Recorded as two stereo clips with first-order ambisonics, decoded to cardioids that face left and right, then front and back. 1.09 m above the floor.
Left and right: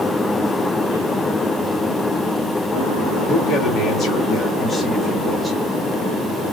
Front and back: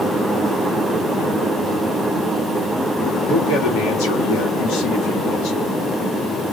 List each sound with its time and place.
3.3 s a man speaking: 40° left, 1.8 m; by 5.7 s straight ahead, 2 m